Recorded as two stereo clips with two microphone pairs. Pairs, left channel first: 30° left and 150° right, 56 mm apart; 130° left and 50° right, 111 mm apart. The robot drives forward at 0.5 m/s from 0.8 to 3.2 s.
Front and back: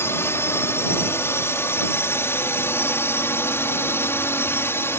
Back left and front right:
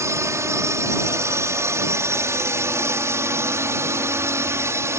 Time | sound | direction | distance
0.0 | a drone | 5° left | ?